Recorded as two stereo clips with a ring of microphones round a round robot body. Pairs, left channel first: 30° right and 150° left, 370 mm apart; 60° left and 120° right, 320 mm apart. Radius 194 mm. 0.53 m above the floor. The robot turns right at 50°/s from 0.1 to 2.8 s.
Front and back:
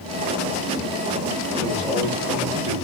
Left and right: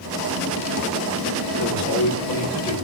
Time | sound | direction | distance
1.6 | a man speaking | 25° left | 1.6 m